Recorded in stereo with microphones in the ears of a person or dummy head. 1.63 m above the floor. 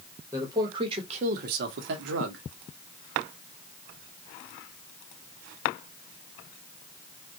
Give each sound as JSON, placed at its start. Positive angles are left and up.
{"t": 0.3, "sound": "a man speaking", "side_deg": -5, "distance_m": 0.9}